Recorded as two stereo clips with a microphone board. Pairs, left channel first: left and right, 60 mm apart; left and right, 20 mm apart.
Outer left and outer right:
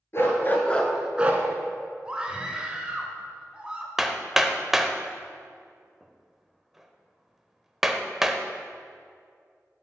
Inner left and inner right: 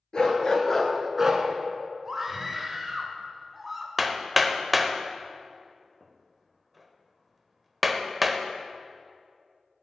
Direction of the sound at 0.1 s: 45° left (ahead or behind).